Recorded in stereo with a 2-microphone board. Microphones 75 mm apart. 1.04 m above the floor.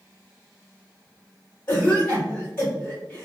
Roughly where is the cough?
Left.